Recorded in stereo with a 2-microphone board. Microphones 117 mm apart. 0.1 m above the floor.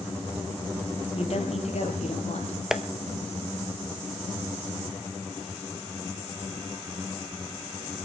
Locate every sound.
1.1 s a woman speaking: 60° left (ahead or behind), 2.5 m; by 2.6 s 70° left (ahead or behind), 3.5 m
2.7 s tapping: 5° right (ahead or behind), 0.7 m